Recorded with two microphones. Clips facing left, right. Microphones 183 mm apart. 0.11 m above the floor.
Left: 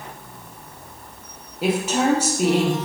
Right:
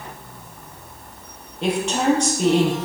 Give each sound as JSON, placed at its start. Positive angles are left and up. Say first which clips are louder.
{"t": 1.6, "sound": "a woman speaking", "louder": "even", "side_deg": 5, "distance_m": 3.5}